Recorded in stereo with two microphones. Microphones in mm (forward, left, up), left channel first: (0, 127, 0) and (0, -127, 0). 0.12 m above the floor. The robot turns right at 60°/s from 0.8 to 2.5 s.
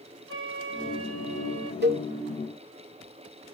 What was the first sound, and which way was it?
A flute, 125° right.